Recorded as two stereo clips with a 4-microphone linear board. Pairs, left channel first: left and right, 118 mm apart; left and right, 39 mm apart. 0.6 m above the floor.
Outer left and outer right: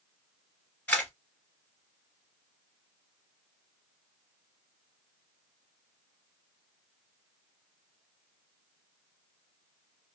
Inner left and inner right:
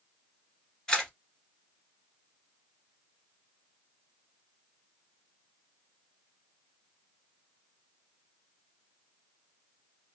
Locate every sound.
0.9 s a camera shutter: 15° left (ahead or behind), 1.5 m